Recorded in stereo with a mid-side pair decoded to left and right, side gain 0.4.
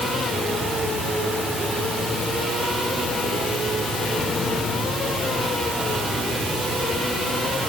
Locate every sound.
Only background noise.